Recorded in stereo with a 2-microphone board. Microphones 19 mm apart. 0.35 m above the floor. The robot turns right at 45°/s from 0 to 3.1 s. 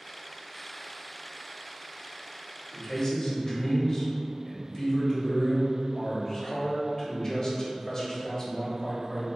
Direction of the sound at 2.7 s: 40° left (ahead or behind).